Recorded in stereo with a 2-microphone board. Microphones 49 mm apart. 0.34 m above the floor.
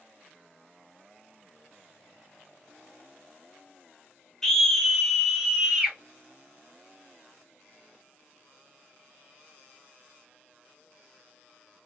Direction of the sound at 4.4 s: 10° left (ahead or behind).